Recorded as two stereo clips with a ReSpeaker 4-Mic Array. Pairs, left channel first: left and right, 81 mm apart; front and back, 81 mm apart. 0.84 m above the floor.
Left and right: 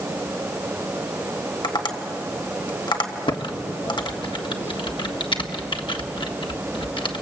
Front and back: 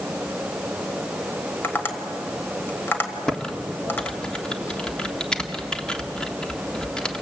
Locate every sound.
1.6 s tapping: 65° left, 2 m
3.3 s typing on a keyboard: 80° left, 1.4 m